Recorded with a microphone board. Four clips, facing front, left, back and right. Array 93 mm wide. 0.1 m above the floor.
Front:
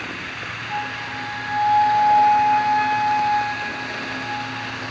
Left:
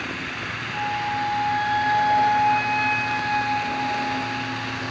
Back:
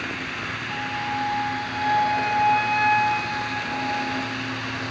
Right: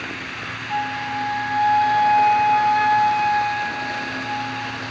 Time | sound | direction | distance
0.7 | a flute | 75° right | 4.5 m